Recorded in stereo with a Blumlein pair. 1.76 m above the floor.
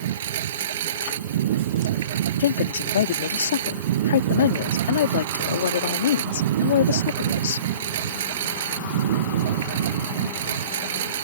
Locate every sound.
0.0 s a lawn mower: 60° right
2.4 s a woman speaking: 60° left